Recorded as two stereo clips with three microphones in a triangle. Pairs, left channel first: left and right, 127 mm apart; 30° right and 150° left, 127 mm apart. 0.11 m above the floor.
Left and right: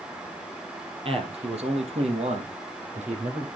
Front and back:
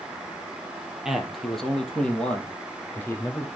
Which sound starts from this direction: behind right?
A man speaking, at 1.1 s.